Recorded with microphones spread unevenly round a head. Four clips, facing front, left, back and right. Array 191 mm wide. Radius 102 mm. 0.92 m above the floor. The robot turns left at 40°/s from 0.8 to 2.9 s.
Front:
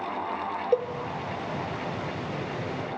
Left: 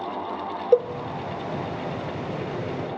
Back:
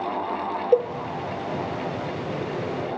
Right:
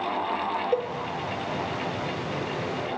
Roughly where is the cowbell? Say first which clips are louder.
Left 10 dB, back 6 dB; left.